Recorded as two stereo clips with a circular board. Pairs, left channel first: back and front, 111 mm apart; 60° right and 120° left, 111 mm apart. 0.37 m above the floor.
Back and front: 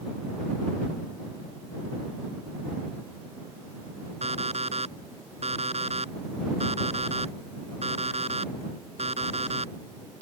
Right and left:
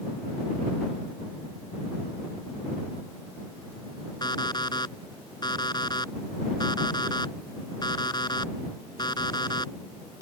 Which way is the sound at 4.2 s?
10° right.